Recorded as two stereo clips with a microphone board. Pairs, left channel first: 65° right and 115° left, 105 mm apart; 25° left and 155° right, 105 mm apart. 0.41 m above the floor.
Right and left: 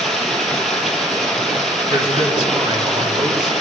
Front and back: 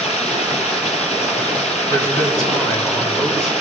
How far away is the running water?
About 3.5 m.